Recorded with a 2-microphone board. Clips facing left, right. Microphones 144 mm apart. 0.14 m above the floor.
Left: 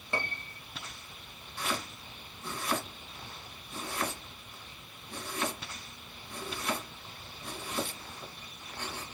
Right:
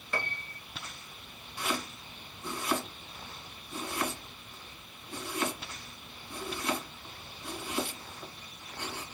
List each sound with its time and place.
0.1 s a piano: 25° left (ahead or behind), 0.6 m
1.6 s chopping: 10° right (ahead or behind), 1.8 m